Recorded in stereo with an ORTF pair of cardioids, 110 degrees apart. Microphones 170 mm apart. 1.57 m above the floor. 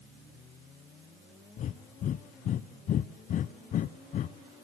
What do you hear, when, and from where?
1.6 s breathing: 50° left, 0.8 m